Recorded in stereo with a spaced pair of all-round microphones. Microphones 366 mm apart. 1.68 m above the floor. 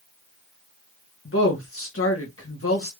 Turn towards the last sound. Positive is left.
turn(degrees=35)  # may be behind; listen again after turning